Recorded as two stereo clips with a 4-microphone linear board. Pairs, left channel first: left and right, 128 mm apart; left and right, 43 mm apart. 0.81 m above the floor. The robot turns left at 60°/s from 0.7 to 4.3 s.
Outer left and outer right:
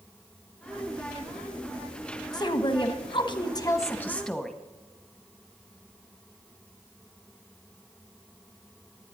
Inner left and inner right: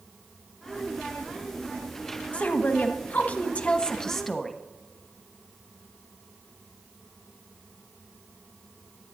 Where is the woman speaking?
125° left, 1.0 m; by 4.5 s 10° left, 1.0 m.